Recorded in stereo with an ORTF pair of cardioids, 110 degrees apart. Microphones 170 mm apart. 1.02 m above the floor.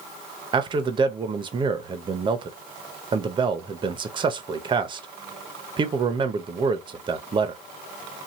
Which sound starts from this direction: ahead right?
A man speaking, at 0.5 s.